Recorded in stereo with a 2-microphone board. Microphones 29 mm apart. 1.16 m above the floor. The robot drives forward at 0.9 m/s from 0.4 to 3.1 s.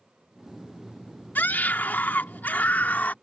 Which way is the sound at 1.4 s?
80° left.